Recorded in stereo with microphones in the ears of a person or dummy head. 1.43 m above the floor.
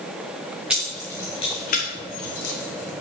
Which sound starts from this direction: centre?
Keys jangling, at 0.7 s.